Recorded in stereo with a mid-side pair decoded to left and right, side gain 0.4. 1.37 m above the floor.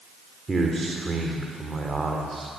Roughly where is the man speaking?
Ahead.